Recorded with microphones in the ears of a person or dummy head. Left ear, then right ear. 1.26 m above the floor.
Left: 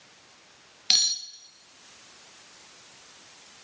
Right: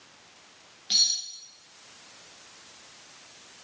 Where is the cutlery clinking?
45° left (ahead or behind), 0.8 m.